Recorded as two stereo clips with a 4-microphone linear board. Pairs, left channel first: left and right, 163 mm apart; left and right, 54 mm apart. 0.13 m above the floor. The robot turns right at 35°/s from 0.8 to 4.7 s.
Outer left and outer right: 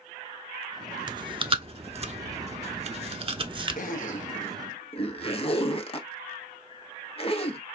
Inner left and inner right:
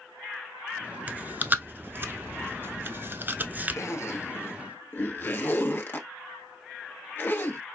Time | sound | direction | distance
1.1 | chewing | 25° right (ahead or behind) | 0.7 m
3.8 | a zipper | 60° left (ahead or behind) | 1.1 m